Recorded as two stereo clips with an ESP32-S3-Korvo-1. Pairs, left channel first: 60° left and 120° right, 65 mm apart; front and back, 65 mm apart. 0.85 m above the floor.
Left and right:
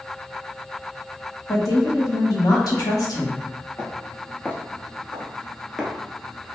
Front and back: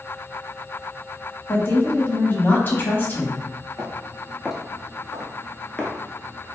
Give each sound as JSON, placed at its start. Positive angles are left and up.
{"t": 1.5, "sound": "a woman speaking", "azimuth_deg": 50, "distance_m": 1.1}
{"t": 3.8, "sound": "footsteps", "azimuth_deg": 105, "distance_m": 1.1}